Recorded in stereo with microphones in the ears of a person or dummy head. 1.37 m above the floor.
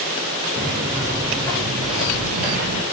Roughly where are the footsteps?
Centre.